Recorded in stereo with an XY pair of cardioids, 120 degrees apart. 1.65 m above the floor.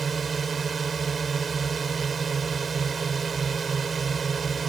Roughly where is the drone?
Ahead right.